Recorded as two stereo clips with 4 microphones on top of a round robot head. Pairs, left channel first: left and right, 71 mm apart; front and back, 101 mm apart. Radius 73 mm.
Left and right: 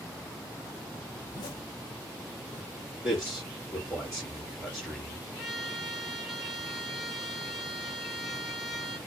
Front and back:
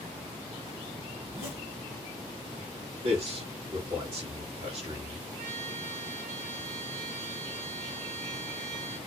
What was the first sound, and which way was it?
A zipper, 110° left.